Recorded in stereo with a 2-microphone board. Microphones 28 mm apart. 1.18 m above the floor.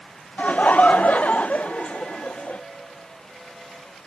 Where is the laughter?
60° left (ahead or behind).